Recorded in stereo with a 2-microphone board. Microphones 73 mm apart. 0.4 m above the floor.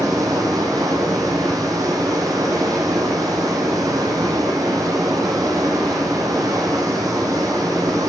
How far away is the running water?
About 2.5 m.